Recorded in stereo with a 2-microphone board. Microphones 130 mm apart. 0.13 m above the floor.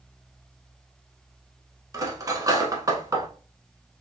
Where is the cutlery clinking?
25° right (ahead or behind), 0.7 m.